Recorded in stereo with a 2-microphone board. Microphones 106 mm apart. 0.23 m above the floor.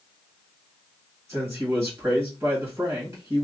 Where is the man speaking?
25° right (ahead or behind), 1.6 m.